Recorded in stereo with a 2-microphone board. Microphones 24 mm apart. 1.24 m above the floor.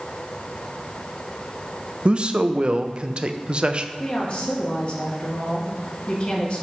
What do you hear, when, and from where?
2.0 s a man speaking: 40° right (ahead or behind), 0.5 m
4.0 s a woman speaking: 40° left (ahead or behind), 1.9 m